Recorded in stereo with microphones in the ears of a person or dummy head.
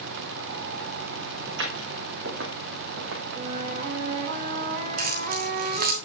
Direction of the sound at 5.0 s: 45° right (ahead or behind).